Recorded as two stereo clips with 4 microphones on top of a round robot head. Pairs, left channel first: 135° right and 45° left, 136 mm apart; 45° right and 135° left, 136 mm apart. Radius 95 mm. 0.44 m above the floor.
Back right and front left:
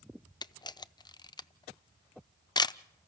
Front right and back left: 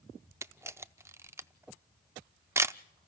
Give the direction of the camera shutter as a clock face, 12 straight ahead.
6 o'clock.